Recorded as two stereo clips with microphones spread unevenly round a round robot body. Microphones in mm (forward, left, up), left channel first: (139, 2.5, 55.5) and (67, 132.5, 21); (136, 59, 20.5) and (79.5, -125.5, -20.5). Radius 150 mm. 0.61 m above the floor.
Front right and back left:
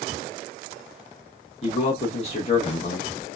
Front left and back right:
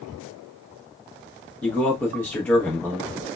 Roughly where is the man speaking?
Ahead.